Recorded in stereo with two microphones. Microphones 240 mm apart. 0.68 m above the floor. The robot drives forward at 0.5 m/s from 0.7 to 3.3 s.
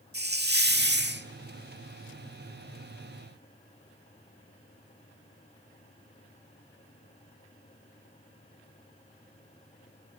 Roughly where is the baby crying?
No baby crying in this recording.